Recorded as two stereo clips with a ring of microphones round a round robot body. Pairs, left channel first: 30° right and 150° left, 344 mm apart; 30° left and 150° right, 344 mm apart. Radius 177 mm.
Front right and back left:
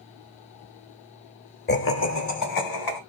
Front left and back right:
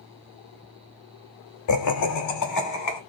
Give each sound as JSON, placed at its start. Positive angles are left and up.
{"t": 1.7, "sound": "laughter", "azimuth_deg": 25, "distance_m": 0.9}